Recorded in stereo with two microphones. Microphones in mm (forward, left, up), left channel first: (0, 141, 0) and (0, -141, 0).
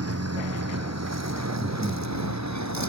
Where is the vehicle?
60° right (ahead or behind); by 2.9 s 75° right (ahead or behind).